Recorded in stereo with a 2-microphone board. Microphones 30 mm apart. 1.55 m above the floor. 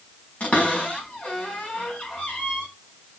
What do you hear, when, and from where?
0.4 s a cupboard door: 55° left (ahead or behind), 4 m